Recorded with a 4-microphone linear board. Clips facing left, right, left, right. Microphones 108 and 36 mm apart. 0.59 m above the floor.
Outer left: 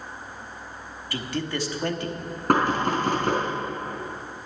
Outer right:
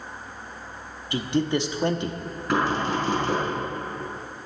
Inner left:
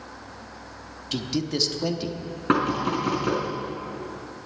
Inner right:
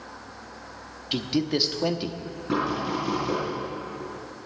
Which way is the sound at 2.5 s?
55° left (ahead or behind).